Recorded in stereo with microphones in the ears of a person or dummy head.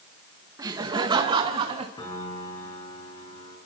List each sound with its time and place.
0.6 s laughter: 25° right (ahead or behind), 1.9 m; by 1.9 s 40° right (ahead or behind), 2.5 m
2.0 s a piano: 20° left (ahead or behind), 5.5 m